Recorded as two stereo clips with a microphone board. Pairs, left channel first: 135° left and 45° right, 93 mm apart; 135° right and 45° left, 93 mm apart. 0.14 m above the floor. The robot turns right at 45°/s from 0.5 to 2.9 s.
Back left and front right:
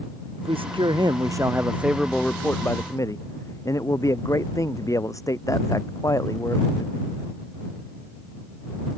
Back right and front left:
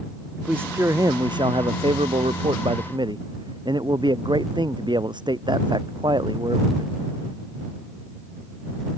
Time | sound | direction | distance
0.4 | a man speaking | 30° right | ?